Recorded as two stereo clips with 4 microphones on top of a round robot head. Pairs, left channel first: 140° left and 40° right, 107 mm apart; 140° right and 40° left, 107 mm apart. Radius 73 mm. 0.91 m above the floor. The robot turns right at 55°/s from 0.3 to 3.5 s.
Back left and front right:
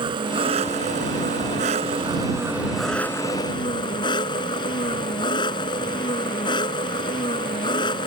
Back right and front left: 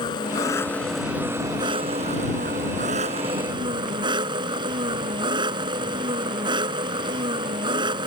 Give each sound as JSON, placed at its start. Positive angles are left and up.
{"t": 0.0, "sound": "an engine running", "azimuth_deg": -85}